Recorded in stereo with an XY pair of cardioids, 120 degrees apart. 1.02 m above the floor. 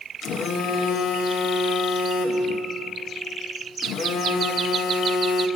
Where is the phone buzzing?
60° left, 0.8 m.